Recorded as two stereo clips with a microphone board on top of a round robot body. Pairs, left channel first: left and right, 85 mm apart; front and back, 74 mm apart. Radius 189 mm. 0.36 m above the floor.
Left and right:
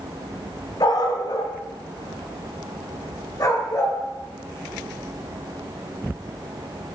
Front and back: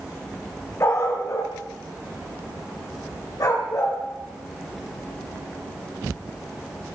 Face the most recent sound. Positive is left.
turn(degrees=40)